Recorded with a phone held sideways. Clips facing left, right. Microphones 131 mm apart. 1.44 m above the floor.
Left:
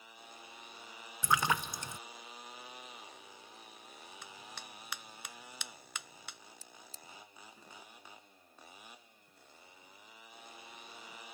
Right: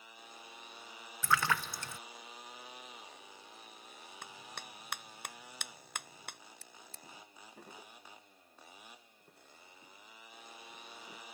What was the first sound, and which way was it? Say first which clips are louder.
A splash: left 1 dB; 20° left (ahead or behind).